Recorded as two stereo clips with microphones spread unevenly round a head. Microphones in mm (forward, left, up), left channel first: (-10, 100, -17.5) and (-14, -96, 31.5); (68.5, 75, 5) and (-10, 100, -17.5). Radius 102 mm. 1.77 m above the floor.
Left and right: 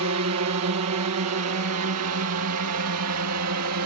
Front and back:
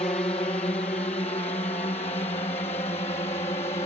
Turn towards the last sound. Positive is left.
turn(degrees=-70)